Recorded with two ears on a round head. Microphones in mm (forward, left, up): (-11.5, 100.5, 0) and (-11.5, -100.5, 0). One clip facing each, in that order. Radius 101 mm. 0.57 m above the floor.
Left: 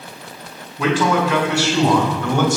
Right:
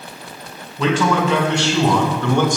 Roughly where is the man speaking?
Centre.